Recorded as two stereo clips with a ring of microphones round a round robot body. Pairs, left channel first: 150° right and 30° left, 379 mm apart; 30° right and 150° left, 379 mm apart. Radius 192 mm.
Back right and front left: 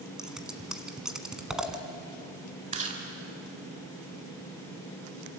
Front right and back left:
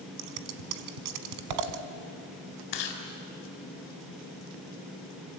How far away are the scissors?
About 1.5 m.